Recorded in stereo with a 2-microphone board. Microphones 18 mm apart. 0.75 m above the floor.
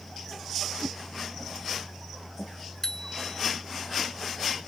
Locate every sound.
0.8 s a whoosh: 55° right (ahead or behind)
2.8 s a bicycle bell: 15° left (ahead or behind)